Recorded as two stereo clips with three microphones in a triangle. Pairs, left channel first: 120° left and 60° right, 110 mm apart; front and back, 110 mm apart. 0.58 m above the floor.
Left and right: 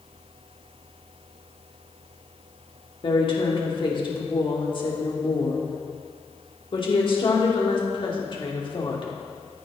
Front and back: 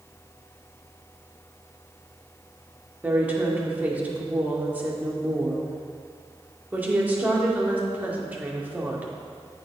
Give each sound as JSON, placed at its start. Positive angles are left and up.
{"t": 3.0, "sound": "a woman speaking", "azimuth_deg": 110, "distance_m": 1.2}